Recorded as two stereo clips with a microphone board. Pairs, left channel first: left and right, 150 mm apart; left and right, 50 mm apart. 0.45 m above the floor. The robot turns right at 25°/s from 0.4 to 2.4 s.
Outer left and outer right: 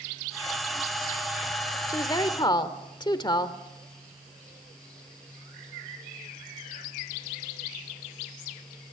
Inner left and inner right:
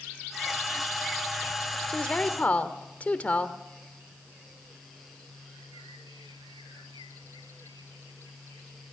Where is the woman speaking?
20° left (ahead or behind), 1.2 m; by 3.6 s 30° left (ahead or behind), 1.2 m.